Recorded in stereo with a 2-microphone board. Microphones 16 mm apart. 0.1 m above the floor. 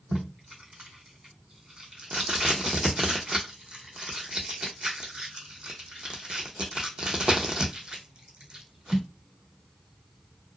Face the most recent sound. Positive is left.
turn(degrees=-65)  # may be behind; listen again after turning